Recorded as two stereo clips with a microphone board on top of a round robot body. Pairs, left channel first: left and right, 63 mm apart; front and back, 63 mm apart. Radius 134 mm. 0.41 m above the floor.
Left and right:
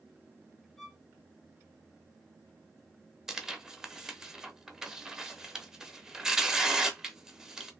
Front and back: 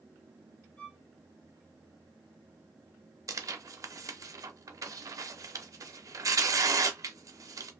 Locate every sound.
0.8 s a violin: 20° left, 1.4 m
3.3 s tearing paper: 170° right, 0.6 m